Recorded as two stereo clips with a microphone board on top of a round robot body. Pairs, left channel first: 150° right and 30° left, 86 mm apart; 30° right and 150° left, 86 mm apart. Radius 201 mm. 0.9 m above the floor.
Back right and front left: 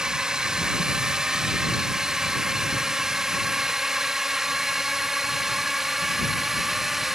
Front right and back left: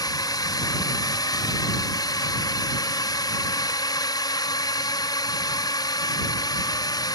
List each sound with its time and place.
0.0 s a drone: 50° right; by 7.2 s 55° right